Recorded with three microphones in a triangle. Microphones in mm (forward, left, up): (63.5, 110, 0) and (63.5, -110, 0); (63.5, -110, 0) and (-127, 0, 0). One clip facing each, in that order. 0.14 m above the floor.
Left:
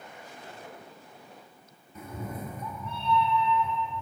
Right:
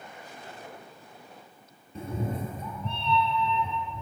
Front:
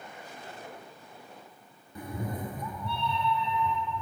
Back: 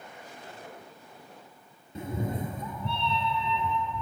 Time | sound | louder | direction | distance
1.9 | a cat meowing | right 5 dB, back 3 dB | 145° right | 1.0 m